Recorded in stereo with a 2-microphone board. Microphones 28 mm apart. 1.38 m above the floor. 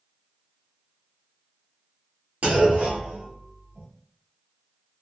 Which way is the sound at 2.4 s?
60° right (ahead or behind).